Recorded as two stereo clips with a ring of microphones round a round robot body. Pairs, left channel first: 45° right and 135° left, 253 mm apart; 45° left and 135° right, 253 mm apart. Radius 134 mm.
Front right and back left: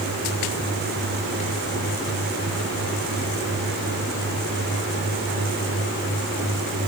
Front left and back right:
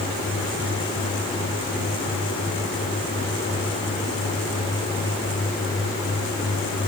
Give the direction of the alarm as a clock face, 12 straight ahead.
I don't hear an alarm.